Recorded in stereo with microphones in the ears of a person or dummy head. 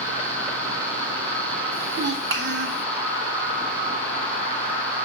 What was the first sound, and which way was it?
A child speaking, 55° right (ahead or behind).